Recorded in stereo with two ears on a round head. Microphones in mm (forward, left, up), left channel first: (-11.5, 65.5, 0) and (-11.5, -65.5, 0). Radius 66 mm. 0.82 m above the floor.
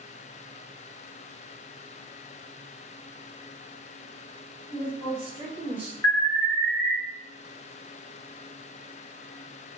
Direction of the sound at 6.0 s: 15° left (ahead or behind).